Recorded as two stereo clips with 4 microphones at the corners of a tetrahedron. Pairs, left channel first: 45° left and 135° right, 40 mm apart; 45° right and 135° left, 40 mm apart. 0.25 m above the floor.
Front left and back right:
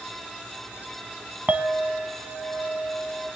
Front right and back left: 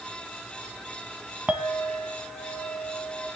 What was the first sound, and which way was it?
A clink, 175° right.